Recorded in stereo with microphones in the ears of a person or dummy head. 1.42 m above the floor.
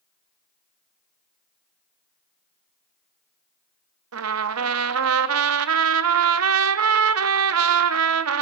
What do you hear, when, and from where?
4.1 s a trumpet: 85° right, 1.0 m